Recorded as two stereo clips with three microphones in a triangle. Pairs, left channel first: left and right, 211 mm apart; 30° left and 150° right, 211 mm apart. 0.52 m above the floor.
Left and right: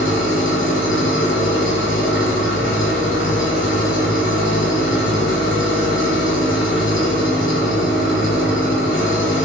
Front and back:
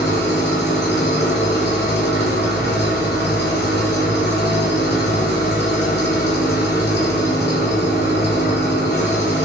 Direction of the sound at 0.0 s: 65° left.